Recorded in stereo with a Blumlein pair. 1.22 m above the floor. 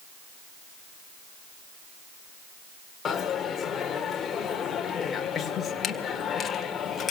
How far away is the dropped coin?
About 1.9 m.